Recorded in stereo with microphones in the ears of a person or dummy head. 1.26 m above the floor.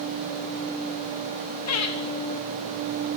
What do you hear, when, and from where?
1.7 s laughter: 85° left, 1.7 m